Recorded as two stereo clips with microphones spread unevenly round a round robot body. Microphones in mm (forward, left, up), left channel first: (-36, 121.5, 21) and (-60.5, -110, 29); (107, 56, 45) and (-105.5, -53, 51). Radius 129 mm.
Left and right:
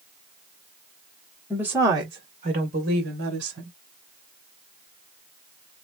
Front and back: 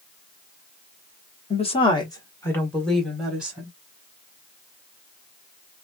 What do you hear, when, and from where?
1.5 s a woman speaking: 10° right, 1.3 m; by 3.7 s 70° right, 1.9 m